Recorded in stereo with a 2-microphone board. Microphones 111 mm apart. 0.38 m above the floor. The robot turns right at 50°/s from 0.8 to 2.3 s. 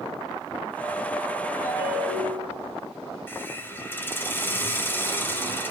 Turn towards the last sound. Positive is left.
turn(degrees=20)  # may be behind; listen again after turning